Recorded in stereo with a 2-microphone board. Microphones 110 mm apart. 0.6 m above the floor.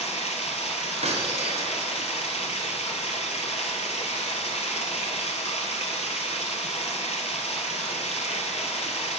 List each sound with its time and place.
0.0 s running water: 80° left, 1.9 m
1.0 s breaking glass: 75° right (ahead or behind), 3.5 m